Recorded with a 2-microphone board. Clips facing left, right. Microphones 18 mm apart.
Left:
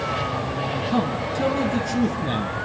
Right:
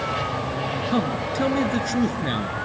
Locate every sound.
0.9 s a man speaking: 25° right (ahead or behind), 2.5 m